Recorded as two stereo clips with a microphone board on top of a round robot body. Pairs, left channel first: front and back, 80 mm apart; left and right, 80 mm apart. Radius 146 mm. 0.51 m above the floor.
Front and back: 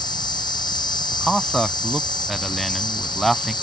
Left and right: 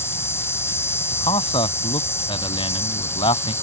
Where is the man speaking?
90° left.